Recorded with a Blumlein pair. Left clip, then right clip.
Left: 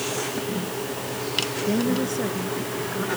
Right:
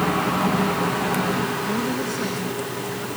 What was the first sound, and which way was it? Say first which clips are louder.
A woman speaking: even; 5° left.